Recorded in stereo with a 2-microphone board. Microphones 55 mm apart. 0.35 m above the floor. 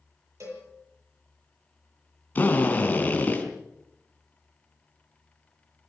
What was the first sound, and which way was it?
A cowbell, 70° right (ahead or behind).